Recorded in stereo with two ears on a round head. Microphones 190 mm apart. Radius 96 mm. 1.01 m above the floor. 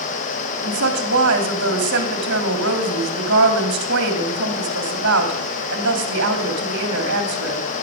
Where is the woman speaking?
50° right (ahead or behind), 3 m.